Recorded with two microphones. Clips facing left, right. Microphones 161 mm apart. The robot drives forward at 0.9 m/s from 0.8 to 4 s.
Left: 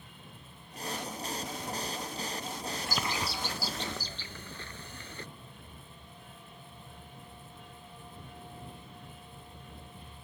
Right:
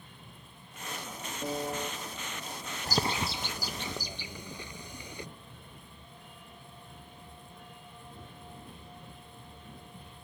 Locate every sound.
1.4 s a piano: 50° right (ahead or behind)
2.9 s a bird: 40° right (ahead or behind); by 5.3 s 15° right (ahead or behind)